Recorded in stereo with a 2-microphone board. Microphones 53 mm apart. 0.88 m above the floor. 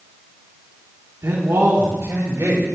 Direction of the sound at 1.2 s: 75° right (ahead or behind).